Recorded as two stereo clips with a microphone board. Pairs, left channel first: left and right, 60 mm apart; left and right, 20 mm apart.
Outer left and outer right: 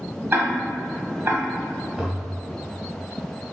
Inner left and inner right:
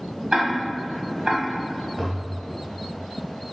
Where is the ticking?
40° right (ahead or behind), 1.6 m.